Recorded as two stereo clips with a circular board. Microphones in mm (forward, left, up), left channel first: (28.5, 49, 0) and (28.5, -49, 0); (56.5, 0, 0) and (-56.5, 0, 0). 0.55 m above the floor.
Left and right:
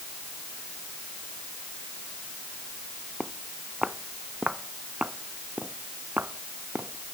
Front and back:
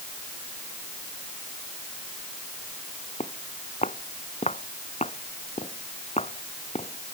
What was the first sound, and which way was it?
Footsteps, 5° right.